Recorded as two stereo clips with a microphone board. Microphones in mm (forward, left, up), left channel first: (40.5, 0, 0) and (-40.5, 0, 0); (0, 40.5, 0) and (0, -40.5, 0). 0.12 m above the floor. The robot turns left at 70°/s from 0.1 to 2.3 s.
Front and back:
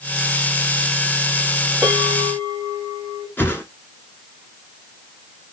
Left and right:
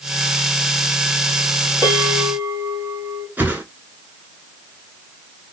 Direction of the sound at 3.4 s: 40° right.